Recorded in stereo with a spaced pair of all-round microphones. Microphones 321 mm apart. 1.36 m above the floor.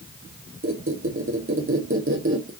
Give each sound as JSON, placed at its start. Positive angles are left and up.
{"t": 0.6, "sound": "a squeak", "side_deg": -45, "distance_m": 0.7}